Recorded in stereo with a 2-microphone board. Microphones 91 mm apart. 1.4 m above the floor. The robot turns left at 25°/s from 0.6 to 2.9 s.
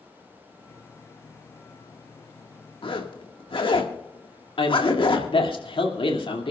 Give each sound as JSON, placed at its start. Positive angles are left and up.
{"t": 2.8, "sound": "a zipper", "side_deg": 70, "distance_m": 1.7}
{"t": 4.6, "sound": "a man speaking", "side_deg": 75, "distance_m": 2.5}